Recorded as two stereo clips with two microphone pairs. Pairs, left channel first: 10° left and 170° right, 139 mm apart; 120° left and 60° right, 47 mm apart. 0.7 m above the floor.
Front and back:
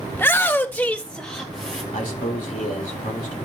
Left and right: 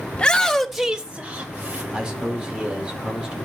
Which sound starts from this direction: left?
A shout, at 0.1 s.